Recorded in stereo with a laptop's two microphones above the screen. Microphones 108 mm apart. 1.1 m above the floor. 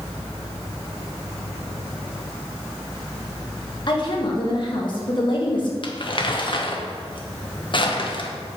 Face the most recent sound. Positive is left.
turn(degrees=50)  # may be behind; listen again after turning